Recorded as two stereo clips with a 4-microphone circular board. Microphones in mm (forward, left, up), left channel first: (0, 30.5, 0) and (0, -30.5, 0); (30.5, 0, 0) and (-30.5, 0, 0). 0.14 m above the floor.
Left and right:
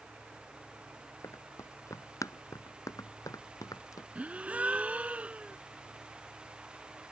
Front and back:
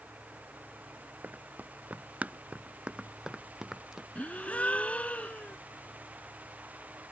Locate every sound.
1.2 s running footsteps: 125° left; by 4.0 s 95° left
4.2 s a gasp: 45° right